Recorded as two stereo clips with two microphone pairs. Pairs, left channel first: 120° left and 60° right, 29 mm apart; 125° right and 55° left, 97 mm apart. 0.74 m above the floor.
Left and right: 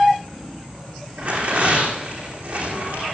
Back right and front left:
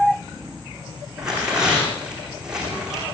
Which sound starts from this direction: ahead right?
Tearing paper, at 1.2 s.